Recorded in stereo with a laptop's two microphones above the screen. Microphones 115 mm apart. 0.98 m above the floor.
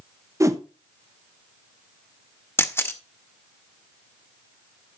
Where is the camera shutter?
20° left (ahead or behind), 0.8 m.